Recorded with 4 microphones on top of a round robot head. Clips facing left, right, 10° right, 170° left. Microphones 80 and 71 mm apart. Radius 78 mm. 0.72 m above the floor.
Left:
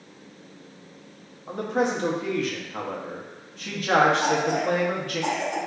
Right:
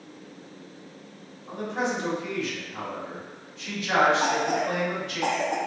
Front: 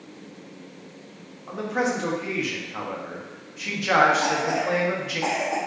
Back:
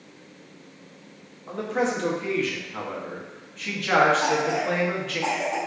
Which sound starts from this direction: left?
A man speaking, at 1.5 s.